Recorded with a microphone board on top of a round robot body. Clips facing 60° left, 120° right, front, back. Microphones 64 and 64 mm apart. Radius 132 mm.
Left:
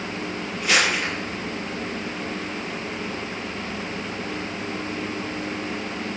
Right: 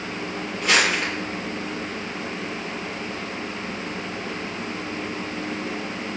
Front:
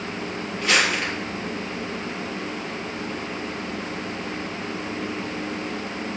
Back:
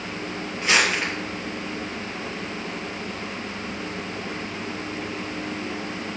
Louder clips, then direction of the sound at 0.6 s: Right 1 dB, even; 110° right.